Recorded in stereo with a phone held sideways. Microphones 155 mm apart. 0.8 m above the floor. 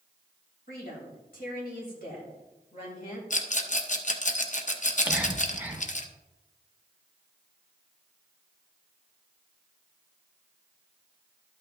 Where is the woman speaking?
85° left, 3.5 m; by 3.2 s 70° left (ahead or behind), 3 m.